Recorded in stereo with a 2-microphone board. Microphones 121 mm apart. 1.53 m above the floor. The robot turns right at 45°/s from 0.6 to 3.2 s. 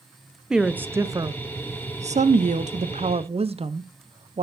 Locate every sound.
0.5 s a woman speaking: 175° right, 0.6 m; by 4.4 s 55° right, 0.6 m